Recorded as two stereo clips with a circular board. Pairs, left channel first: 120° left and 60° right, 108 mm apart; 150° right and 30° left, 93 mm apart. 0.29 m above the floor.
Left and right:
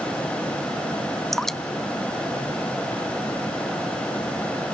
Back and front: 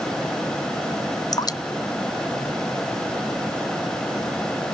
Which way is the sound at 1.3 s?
155° right.